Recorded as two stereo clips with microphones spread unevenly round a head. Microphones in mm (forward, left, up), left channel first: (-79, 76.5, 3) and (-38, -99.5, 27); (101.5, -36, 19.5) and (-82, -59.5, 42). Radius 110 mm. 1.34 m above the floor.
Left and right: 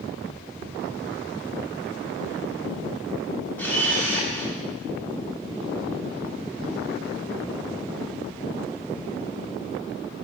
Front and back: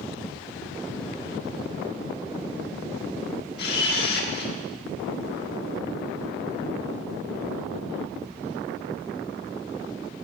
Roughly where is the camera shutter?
Ahead.